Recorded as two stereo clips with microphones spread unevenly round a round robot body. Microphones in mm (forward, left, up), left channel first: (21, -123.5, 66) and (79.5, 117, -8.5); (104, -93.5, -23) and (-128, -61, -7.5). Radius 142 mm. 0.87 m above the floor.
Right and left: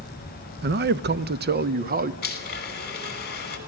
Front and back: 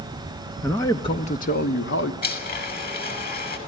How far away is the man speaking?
About 0.9 m.